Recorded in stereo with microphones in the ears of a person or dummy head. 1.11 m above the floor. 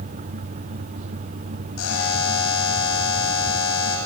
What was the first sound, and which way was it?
A buzzer, 85° left.